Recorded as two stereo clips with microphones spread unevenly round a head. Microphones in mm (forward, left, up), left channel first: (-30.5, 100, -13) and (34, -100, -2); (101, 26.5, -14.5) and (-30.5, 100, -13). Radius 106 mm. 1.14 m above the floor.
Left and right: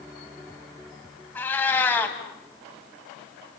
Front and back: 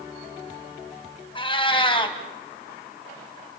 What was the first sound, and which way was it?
A cat meowing, 25° left.